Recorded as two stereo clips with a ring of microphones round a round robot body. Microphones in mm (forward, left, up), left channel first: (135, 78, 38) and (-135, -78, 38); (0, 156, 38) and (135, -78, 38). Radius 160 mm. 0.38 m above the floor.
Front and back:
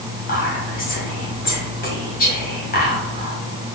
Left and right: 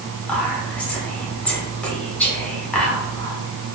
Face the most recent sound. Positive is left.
turn(degrees=40)